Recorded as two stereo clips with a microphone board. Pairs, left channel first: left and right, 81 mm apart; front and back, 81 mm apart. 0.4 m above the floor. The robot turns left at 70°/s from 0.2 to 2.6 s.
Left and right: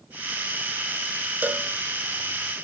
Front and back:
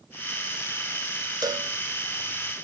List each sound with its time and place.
1.4 s a cowbell: 155° right, 0.7 m; by 1.7 s 175° right, 0.7 m